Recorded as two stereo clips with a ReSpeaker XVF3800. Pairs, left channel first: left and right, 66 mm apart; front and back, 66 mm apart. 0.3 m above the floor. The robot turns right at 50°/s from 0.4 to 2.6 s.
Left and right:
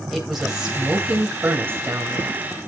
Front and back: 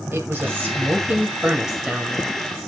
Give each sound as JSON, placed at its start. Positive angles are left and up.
{"t": 0.1, "sound": "a woman speaking", "azimuth_deg": -170, "distance_m": 1.7}